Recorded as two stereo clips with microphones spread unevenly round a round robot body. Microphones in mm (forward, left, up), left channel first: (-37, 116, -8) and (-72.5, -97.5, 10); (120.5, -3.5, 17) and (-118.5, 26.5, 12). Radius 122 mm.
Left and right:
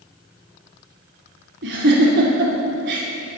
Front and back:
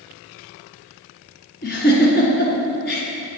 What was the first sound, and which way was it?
A giggle, 55° right.